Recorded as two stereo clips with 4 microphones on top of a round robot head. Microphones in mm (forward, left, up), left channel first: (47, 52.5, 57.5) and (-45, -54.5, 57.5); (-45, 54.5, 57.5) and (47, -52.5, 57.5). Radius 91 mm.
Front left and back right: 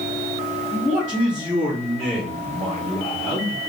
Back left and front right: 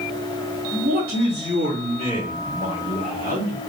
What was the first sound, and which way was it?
A man speaking, 55° right.